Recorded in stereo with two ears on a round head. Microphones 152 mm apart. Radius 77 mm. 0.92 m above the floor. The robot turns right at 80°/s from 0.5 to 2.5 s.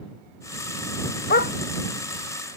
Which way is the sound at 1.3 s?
55° left (ahead or behind).